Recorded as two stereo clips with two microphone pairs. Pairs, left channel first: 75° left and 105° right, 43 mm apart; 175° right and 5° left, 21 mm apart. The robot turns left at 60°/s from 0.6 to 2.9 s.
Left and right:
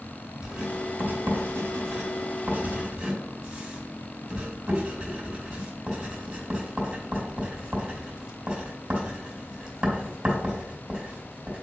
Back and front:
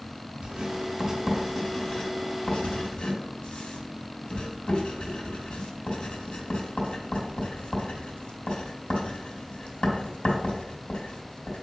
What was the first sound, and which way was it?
Writing, 35° right.